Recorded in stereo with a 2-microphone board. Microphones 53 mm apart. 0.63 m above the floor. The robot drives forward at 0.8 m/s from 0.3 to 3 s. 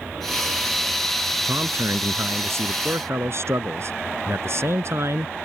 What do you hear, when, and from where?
1.4 s a man speaking: 60° right (ahead or behind); by 5.3 s 55° right (ahead or behind)